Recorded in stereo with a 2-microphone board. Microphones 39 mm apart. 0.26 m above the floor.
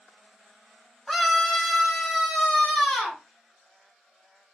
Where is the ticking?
I don't hear ticking.